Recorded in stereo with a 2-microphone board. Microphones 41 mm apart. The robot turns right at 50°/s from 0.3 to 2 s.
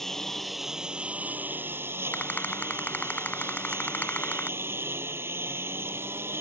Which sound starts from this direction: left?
A rattle, at 2.1 s.